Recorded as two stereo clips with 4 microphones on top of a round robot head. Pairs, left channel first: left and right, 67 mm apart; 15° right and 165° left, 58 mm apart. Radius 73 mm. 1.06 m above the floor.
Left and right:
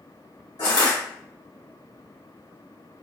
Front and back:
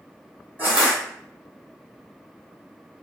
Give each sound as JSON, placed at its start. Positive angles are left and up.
{"t": 0.6, "sound": "crushing", "azimuth_deg": 110, "distance_m": 1.3}